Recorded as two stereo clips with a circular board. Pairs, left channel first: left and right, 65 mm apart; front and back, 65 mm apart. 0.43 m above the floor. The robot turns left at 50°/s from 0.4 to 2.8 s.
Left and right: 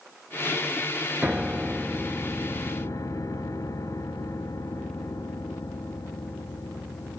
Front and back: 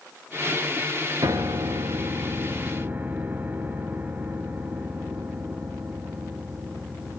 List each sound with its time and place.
1.2 s a piano: 160° right, 0.9 m; by 7.2 s 120° left, 0.9 m